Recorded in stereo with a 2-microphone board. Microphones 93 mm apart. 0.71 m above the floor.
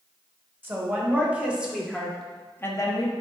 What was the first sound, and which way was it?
A woman speaking, 20° right (ahead or behind).